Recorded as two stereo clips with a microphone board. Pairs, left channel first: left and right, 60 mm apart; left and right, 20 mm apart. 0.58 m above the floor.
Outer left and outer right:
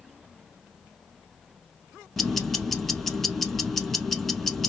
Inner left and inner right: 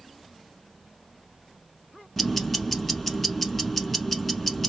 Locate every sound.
2.2 s ticking: 5° left (ahead or behind), 0.9 m